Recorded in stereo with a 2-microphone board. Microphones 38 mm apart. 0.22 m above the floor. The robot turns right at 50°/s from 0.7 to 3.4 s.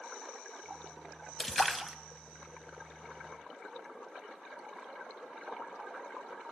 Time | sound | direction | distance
1.4 | a splash | 10° left (ahead or behind) | 0.7 m